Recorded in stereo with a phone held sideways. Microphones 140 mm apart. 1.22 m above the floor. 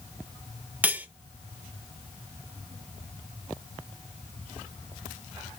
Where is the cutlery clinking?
10° right (ahead or behind), 0.6 m.